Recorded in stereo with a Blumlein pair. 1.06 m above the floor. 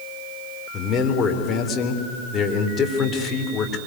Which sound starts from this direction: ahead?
A man speaking, at 0.7 s.